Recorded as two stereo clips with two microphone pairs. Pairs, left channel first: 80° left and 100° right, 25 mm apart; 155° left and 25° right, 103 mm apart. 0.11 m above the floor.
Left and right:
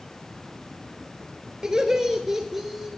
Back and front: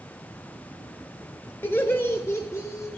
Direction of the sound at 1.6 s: 150° right.